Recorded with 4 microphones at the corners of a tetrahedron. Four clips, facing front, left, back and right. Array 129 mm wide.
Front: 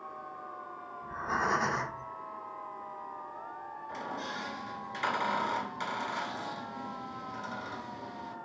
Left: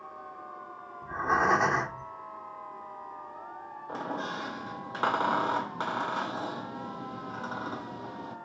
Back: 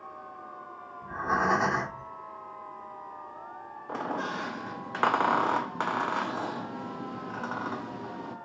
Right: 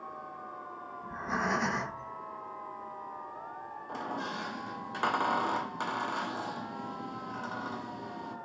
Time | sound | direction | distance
1.0 | breathing | 130° left | 2 m
3.9 | a squeak | 170° left | 1.6 m